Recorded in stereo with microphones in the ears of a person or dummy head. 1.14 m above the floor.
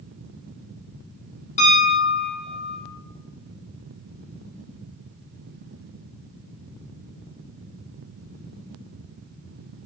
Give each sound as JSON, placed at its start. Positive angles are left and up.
{"t": 1.6, "sound": "a piano", "side_deg": 30, "distance_m": 0.6}